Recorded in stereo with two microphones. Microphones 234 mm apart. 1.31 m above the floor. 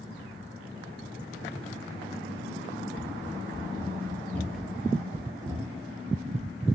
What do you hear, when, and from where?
3.0 s running footsteps: 30° left (ahead or behind), 1.6 m; by 6.7 s 30° right (ahead or behind), 1.7 m